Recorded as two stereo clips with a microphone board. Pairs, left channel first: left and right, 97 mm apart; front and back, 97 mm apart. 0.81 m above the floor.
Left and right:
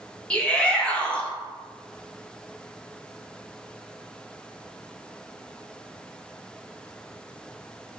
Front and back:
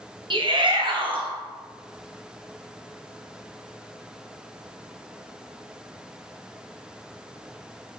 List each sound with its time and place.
0.3 s a shout: 165° left, 0.7 m